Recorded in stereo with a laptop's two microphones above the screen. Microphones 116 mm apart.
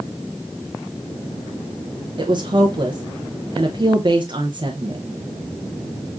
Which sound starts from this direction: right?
A woman speaking, at 2.2 s.